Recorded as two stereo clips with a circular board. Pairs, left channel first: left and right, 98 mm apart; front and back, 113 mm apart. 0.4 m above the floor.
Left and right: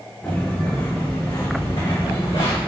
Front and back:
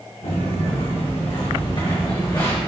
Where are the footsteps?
15° left, 2.5 m; by 2.6 s 65° left, 2.5 m.